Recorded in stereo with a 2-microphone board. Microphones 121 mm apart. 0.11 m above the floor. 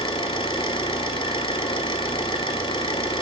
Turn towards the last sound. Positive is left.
turn(degrees=45)  # may be behind; listen again after turning